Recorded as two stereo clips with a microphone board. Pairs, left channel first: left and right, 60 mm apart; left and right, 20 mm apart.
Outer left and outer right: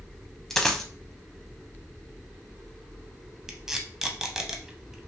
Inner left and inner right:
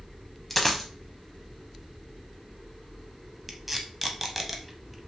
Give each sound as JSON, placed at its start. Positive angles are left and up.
{"t": 0.5, "sound": "a dropped coin", "side_deg": 5, "distance_m": 0.6}
{"t": 3.5, "sound": "tape being pulled", "side_deg": -10, "distance_m": 0.5}